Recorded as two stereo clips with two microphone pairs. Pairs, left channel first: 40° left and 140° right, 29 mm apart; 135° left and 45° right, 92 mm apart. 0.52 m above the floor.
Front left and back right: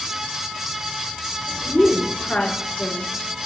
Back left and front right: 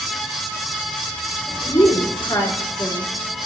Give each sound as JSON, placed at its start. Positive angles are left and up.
{"t": 1.6, "sound": "a woman speaking", "azimuth_deg": 80, "distance_m": 4.5}